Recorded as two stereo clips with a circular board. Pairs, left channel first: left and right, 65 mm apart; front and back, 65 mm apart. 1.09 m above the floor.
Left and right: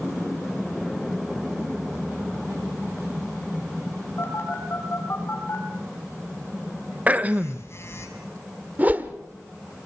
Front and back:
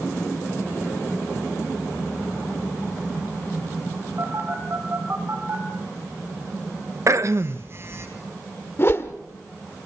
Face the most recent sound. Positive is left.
turn(degrees=-35)